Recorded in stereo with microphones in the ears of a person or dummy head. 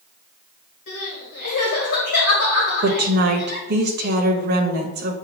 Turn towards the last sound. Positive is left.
turn(degrees=-55)  # may be behind; listen again after turning